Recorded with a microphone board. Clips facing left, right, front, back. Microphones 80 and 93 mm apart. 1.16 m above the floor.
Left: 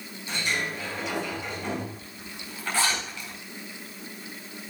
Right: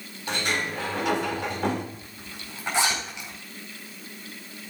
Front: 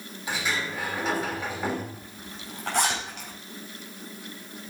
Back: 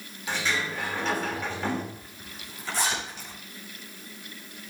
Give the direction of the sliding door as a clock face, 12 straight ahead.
3 o'clock.